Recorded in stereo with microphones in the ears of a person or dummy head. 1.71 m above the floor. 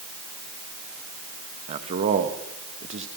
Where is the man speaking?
35° right (ahead or behind), 1.7 m.